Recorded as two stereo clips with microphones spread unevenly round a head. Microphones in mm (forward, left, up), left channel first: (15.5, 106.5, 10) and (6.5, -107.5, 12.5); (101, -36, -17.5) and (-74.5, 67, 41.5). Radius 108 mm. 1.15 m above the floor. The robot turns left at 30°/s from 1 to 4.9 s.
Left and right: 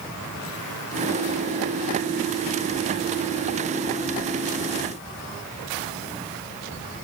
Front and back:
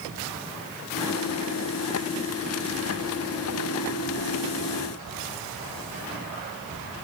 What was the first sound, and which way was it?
Only background noise.